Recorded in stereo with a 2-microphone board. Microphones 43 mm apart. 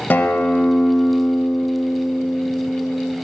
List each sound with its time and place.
0.1 s a guitar: 45° left (ahead or behind), 0.7 m